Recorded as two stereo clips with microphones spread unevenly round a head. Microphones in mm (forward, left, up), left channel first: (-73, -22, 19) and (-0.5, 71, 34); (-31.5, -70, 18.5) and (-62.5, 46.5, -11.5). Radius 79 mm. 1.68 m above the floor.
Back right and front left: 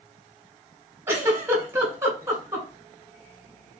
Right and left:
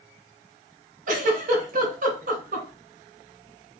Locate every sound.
1.1 s a giggle: 110° left, 2 m